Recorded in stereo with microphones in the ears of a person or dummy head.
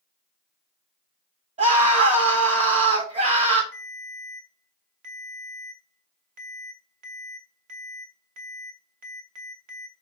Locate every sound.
1.6 s a scream: 35° right (ahead or behind), 1.6 m
3.7 s a ringtone: 40° right (ahead or behind), 1.3 m